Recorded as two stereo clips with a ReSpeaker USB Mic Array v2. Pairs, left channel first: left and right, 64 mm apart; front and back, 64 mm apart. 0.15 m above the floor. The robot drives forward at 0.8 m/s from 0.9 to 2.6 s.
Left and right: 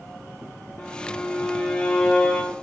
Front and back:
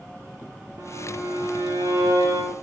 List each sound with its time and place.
0.8 s a violin: 155° left, 5 m; by 2.5 s 160° left, 6 m